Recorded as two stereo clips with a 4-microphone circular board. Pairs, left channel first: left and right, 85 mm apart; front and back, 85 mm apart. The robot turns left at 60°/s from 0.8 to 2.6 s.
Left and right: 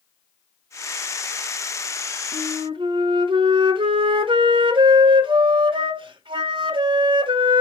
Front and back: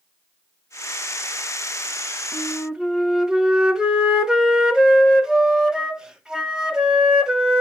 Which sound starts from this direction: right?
A flute, at 2.3 s.